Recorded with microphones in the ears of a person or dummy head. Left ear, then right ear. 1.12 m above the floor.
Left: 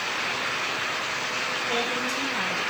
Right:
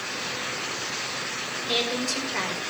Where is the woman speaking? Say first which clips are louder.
Even; 35° right (ahead or behind), 4 m.